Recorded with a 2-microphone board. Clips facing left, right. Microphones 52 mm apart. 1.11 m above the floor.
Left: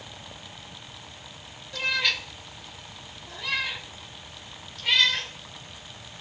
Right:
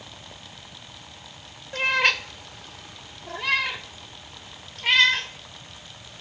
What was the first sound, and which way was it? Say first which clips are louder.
A cat meowing: right 5 dB; 35° right (ahead or behind).